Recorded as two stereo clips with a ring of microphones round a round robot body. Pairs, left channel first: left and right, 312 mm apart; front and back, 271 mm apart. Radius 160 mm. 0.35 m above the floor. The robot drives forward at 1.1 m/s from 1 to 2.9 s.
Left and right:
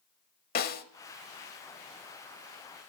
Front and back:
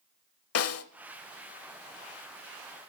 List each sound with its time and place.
0.6 s a snare drum: 30° left, 0.9 m